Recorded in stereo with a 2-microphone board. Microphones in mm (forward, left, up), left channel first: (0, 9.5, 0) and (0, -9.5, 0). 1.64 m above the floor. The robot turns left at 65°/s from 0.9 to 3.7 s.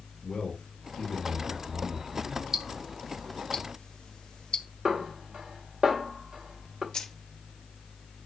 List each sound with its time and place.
0.2 s a man speaking: 90° left, 5 m; by 2.4 s 10° right, 5 m
2.5 s ticking: 20° right (ahead or behind), 1.0 m; by 4.7 s 55° left (ahead or behind), 1.0 m
4.8 s a snare drum: 35° right (ahead or behind), 2 m
6.9 s keys jangling: 40° left (ahead or behind), 1.6 m